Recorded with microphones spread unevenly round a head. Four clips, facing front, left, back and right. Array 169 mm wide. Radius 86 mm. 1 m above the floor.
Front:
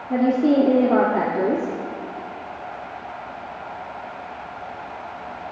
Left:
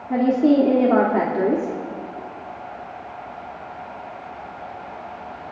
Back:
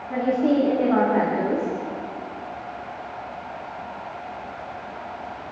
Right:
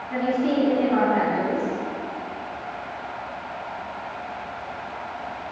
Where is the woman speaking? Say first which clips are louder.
Left 6 dB, front 3 dB; 60° left, 3 m.